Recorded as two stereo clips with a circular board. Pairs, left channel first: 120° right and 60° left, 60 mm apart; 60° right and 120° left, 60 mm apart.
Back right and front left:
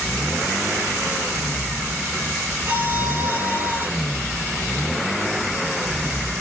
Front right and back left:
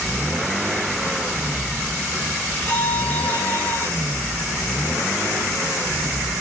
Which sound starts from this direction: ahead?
A violin, at 2.7 s.